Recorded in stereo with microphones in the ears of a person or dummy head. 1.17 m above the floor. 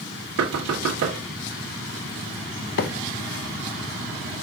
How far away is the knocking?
About 1.1 m.